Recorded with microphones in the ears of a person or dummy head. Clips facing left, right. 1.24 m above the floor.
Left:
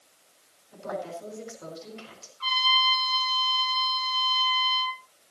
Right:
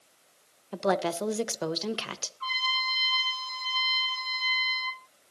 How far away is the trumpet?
About 5.5 m.